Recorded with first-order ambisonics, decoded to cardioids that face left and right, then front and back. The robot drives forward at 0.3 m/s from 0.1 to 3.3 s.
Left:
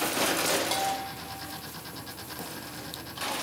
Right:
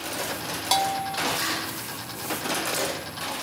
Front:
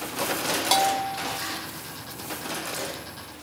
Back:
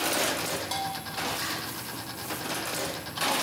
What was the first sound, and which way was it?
A bell, 35° right.